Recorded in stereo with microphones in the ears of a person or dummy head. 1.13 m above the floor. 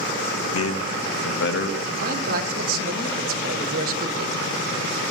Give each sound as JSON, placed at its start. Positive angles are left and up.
{"t": 0.5, "sound": "a man speaking", "side_deg": 65, "distance_m": 0.8}
{"t": 1.9, "sound": "a man speaking", "side_deg": -45, "distance_m": 1.5}